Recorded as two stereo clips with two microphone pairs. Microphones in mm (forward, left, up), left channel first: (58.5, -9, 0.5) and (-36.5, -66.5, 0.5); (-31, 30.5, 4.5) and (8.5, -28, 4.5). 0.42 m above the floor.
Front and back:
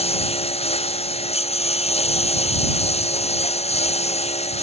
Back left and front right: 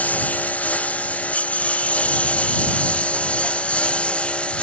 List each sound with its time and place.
0.0 s a lawn mower: 55° left; by 4.6 s 50° left